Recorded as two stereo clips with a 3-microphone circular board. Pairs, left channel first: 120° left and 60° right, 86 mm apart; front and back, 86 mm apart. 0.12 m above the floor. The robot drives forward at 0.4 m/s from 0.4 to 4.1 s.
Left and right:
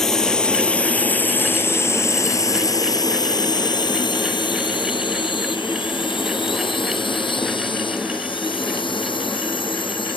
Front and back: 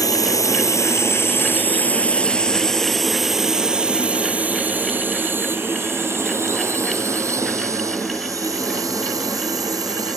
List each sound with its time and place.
0.0 s a drone: 35° left; by 10.2 s 135° left